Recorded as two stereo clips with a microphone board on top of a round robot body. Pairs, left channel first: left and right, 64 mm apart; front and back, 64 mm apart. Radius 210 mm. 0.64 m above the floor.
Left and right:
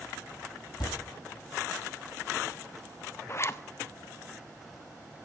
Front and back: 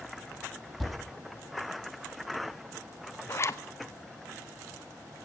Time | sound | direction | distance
0.8 | a thud | 90° left | 8 m
3.3 | a zipper | 45° left | 0.9 m